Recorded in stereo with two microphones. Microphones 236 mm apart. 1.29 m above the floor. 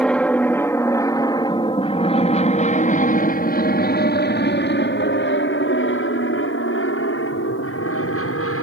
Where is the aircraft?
5° left (ahead or behind); by 8.6 s 70° left (ahead or behind).